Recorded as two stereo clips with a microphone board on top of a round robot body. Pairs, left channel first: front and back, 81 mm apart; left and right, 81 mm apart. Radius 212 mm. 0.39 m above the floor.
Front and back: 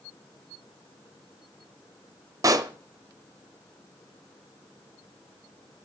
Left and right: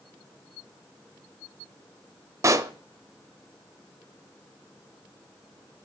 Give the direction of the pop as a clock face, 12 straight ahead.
5 o'clock.